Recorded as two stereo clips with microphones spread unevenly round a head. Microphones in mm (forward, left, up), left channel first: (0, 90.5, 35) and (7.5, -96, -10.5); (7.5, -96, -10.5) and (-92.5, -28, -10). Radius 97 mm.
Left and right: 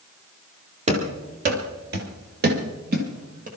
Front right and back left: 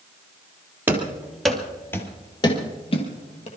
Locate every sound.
0.9 s running footsteps: 145° right, 2.5 m; by 3.5 s 35° right, 3 m